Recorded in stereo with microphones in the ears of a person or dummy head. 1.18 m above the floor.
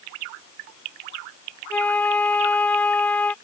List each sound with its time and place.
1.7 s a flute: 10° left (ahead or behind)